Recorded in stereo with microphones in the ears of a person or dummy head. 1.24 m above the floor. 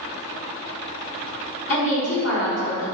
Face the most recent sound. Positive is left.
turn(degrees=75)  # may be behind; listen again after turning